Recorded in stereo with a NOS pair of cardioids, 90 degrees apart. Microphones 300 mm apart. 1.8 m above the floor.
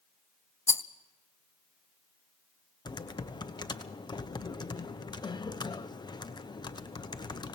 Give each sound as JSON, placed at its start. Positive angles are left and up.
{"t": 0.7, "sound": "a rattle", "azimuth_deg": 10, "distance_m": 0.7}
{"t": 2.9, "sound": "typing on a keyboard", "azimuth_deg": 15, "distance_m": 1.0}